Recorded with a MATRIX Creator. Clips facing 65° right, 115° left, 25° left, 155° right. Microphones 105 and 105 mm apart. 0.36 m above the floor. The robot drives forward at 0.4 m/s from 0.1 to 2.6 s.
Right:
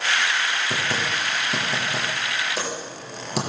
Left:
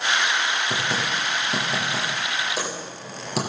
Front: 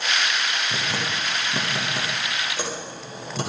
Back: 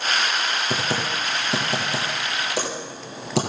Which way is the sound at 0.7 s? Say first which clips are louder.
Even, back 3 dB; 155° right.